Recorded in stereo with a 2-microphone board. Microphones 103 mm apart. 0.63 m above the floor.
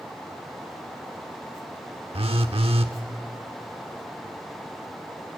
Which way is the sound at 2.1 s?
70° right (ahead or behind).